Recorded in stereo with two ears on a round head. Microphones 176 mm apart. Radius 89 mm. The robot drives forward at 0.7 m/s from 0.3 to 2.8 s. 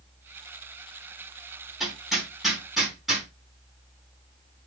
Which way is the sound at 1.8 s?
Centre (ahead or behind).